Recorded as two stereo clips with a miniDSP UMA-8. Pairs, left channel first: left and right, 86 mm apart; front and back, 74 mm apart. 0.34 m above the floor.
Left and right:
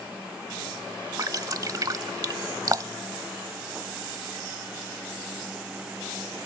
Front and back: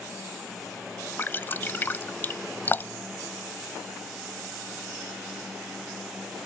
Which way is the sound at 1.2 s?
55° right.